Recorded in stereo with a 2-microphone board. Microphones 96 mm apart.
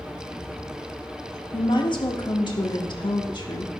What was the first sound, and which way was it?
A woman speaking, 55° left (ahead or behind).